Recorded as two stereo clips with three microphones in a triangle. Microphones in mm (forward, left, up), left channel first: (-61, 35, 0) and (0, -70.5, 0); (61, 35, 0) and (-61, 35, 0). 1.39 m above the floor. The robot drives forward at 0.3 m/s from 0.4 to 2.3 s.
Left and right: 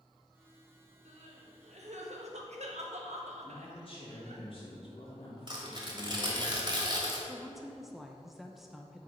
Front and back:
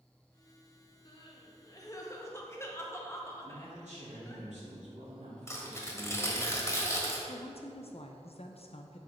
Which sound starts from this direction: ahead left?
A woman speaking, at 7.3 s.